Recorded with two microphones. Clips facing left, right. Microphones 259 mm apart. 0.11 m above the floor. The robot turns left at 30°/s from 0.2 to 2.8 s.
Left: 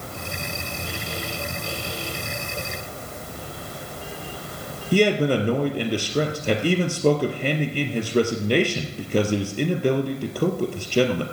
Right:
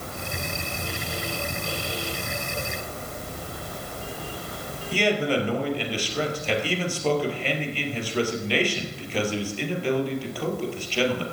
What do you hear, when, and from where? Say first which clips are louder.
4.9 s a man speaking: left 5 dB; 45° left (ahead or behind), 2.5 m